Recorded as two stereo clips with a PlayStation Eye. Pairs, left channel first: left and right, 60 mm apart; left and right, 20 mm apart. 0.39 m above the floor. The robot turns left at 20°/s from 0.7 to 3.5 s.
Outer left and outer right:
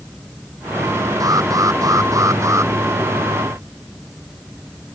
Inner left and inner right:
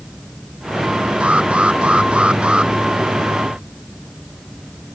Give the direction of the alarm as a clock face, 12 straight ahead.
3 o'clock.